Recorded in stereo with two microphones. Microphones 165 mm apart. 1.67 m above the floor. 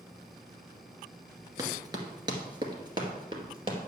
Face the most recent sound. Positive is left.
turn(degrees=-30)  # may be behind; listen again after turning